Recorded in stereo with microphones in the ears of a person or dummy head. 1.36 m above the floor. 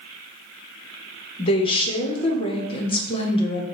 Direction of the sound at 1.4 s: 30° left (ahead or behind).